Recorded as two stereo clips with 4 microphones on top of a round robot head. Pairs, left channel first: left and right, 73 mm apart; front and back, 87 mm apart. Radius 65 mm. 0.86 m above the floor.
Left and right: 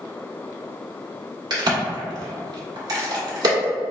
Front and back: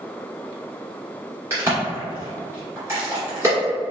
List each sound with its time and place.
1.5 s a crack: 115° right, 1.6 m